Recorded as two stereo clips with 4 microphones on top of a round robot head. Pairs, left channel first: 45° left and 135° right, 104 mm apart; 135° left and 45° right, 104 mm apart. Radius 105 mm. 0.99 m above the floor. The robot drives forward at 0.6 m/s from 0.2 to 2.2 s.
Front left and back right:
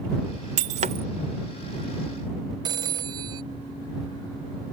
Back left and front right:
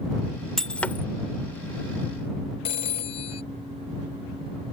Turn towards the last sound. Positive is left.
turn(degrees=170)